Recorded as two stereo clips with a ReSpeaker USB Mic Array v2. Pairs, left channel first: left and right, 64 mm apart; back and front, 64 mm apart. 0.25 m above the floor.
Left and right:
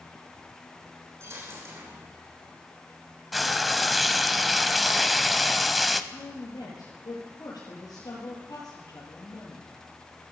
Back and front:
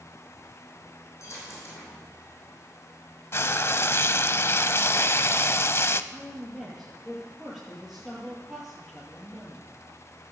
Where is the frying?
Straight behind, 0.6 m.